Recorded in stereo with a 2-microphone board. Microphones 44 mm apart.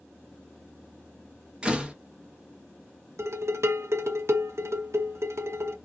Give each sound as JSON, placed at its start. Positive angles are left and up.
{"t": 1.6, "sound": "a door slam", "side_deg": -20, "distance_m": 0.7}
{"t": 3.2, "sound": "dishes clattering", "side_deg": -70, "distance_m": 0.7}